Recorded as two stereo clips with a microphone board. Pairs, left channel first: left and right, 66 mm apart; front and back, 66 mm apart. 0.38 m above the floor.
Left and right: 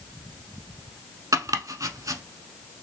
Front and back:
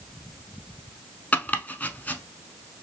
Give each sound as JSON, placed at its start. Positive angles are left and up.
{"t": 1.3, "sound": "chopping", "azimuth_deg": -65, "distance_m": 0.6}